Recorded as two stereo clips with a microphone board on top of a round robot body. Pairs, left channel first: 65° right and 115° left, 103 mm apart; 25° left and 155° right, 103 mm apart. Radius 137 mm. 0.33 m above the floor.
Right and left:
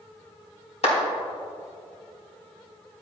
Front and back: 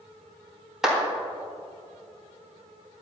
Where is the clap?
70° right, 3.5 m.